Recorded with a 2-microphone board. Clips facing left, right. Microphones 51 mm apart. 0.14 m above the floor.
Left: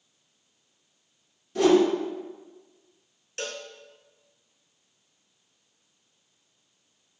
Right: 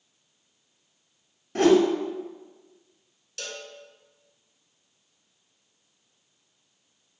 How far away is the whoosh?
About 0.8 m.